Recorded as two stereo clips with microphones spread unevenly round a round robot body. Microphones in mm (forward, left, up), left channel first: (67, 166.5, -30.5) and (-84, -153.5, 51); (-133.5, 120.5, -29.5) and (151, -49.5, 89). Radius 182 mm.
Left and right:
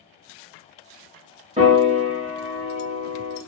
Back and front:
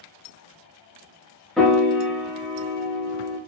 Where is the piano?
165° left, 0.6 m.